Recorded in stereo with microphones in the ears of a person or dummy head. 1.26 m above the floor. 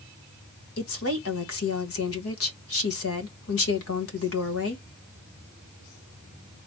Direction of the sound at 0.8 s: 75° left (ahead or behind).